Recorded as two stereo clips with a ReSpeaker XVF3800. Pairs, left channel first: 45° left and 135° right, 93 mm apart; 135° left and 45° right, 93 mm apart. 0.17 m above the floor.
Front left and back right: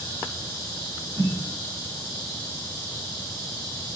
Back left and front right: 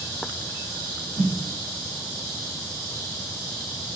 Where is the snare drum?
95° right, 3 m.